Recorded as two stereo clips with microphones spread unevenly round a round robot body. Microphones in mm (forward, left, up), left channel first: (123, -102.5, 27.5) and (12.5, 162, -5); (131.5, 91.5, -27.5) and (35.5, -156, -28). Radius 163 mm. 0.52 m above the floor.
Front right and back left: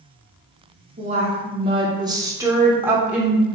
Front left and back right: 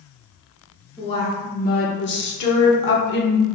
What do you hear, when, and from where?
1.0 s a woman speaking: 135° left, 0.9 m; by 3.5 s 30° left, 1.7 m